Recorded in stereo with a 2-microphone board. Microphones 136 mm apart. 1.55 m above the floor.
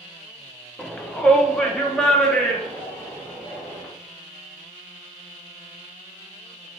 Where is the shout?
5° left (ahead or behind), 0.9 m.